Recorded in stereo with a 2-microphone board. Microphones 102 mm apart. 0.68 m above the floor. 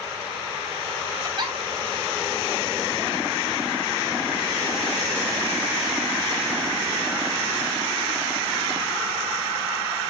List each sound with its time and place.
1.2 s a giggle: 45° right (ahead or behind), 3.5 m